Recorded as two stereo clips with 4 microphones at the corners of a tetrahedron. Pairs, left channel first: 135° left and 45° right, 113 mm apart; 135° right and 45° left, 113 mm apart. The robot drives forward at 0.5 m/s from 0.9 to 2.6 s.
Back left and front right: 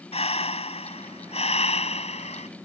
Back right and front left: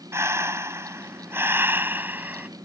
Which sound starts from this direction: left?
Breathing, at 0.1 s.